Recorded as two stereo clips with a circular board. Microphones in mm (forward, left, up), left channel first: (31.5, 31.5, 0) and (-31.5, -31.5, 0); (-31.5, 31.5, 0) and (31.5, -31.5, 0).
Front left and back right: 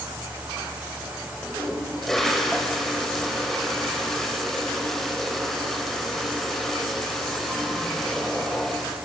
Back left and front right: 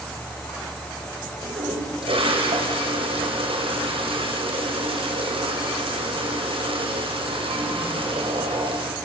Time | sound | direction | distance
1.4 | a toilet flushing | 40° right | 6.5 m